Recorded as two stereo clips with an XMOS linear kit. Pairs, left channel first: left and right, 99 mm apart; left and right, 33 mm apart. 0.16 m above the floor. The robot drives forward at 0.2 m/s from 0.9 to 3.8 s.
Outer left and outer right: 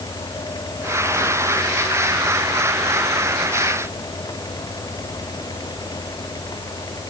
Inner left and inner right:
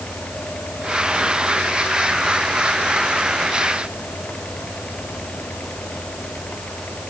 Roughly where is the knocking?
I don't hear knocking.